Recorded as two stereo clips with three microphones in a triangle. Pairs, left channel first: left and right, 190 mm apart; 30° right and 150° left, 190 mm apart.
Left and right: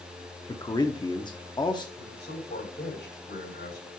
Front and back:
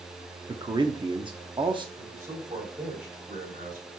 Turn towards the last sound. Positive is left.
turn(degrees=110)